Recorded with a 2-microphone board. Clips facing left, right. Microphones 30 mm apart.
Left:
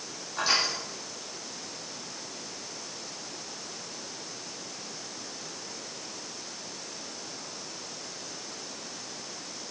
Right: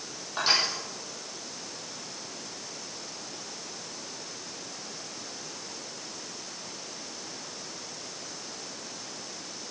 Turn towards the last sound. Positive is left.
turn(degrees=-30)  # may be behind; listen again after turning